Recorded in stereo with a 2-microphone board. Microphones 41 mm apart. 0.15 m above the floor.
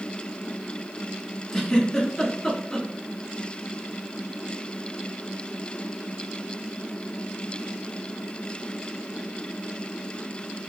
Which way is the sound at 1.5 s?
10° left (ahead or behind).